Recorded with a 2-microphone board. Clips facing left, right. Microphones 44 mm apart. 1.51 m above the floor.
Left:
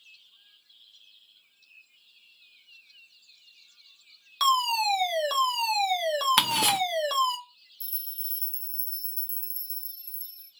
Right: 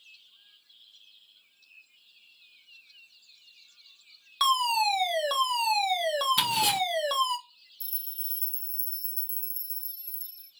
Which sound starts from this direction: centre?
A fire alarm, at 4.4 s.